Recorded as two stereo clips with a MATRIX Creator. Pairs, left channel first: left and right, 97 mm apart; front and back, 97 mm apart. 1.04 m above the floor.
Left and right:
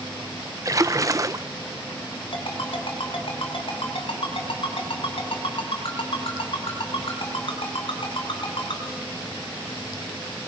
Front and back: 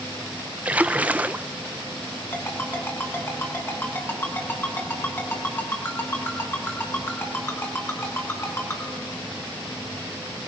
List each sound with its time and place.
0.7 s a splash: 115° right, 0.5 m
2.3 s a ringtone: 65° left, 5 m